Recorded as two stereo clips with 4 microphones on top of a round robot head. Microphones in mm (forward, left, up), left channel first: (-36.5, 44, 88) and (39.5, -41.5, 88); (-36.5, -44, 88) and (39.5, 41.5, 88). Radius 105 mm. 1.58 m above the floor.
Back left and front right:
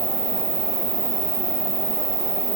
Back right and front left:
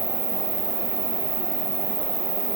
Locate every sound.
0.0 s an insect: straight ahead, 3 m